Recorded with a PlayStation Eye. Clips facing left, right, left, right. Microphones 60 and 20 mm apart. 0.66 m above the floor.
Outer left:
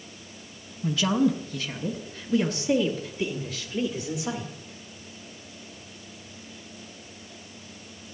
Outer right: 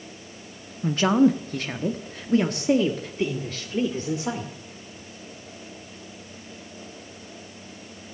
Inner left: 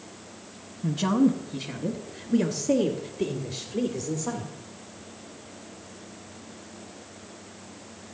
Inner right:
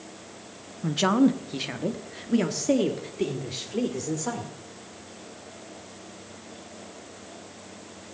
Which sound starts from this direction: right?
A man speaking, at 0.8 s.